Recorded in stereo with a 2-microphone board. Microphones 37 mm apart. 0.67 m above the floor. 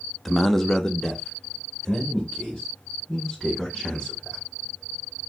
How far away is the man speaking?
About 0.6 m.